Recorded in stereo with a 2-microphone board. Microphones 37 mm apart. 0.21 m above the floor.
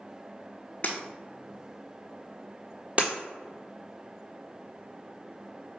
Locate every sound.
0.8 s breaking glass: 45° left (ahead or behind), 0.9 m
3.0 s breaking glass: 40° right (ahead or behind), 1.1 m